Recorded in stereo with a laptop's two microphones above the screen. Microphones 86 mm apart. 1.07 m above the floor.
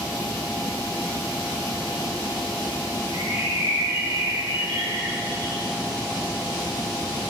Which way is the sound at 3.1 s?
60° right (ahead or behind).